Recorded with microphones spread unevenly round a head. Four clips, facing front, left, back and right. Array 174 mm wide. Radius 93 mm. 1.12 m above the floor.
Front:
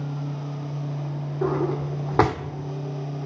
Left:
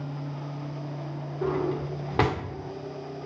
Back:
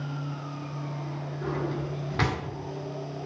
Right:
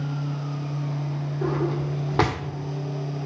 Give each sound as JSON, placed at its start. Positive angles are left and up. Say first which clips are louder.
{"t": 1.4, "sound": "a drawer", "louder": "right 1 dB, front 7 dB", "azimuth_deg": -10, "distance_m": 1.5}